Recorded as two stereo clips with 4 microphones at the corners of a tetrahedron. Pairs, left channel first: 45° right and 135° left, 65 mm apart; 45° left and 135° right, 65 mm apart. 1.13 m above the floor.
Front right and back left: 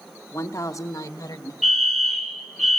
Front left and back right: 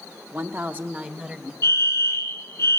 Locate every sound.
0.3 s a woman speaking: 85° right, 1.7 m; by 1.5 s 60° right, 1.9 m
1.6 s a fire alarm: 50° left, 1.9 m